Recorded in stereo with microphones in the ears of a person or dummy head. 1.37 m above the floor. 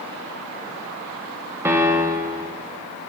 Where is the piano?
10° right (ahead or behind), 0.6 m.